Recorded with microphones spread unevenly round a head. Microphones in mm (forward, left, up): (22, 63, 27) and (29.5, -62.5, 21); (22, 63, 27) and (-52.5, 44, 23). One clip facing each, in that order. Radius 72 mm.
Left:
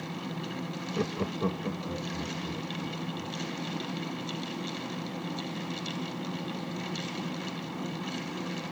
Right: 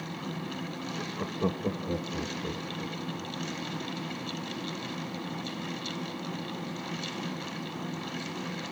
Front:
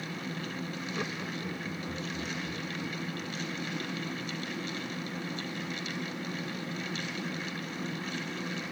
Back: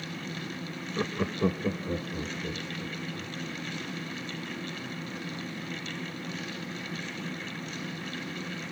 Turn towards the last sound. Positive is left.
turn(degrees=-130)